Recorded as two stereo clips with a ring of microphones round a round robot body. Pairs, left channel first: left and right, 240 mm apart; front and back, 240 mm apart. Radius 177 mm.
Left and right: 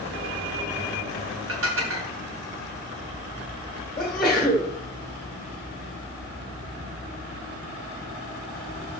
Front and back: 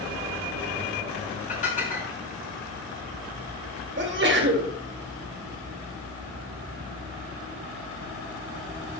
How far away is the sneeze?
About 2.0 m.